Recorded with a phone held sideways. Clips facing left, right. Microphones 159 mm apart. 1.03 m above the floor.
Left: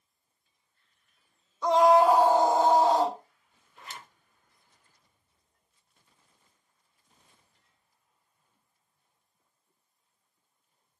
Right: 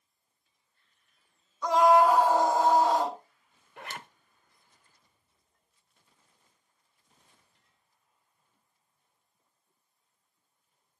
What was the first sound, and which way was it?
A scream, 30° left (ahead or behind).